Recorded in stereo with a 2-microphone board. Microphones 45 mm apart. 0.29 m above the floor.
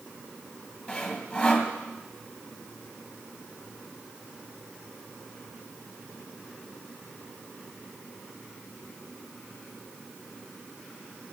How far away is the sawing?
About 2 m.